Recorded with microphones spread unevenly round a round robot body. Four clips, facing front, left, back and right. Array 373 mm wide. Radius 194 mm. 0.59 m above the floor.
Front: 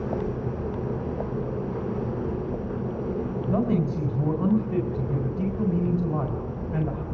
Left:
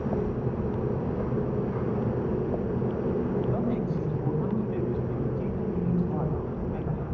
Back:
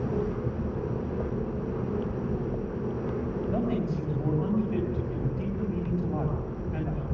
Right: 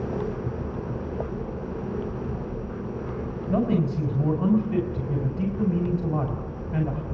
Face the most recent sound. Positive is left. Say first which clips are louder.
# right 4 dB, front 6 dB
turn(degrees=-65)